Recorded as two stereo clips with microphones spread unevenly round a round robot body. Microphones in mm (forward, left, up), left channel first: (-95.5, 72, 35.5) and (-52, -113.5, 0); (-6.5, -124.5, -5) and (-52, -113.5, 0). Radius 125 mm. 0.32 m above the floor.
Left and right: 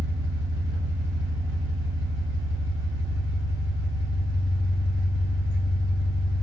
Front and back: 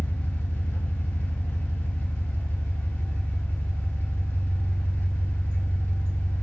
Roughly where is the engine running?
Ahead right.